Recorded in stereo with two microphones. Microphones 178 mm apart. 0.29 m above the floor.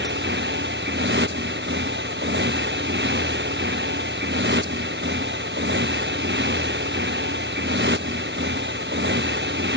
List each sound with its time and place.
0.0 s a motorcycle: 90° right